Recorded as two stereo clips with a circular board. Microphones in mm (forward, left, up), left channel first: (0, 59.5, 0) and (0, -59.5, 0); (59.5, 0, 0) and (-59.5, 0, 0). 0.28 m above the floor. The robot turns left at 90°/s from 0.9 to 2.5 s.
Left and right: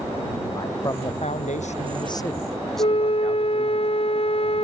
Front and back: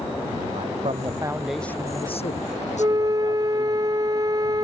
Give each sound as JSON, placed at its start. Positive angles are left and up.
{"t": 0.6, "sound": "a man speaking", "azimuth_deg": 150}
{"t": 2.8, "sound": "a flute", "azimuth_deg": 125}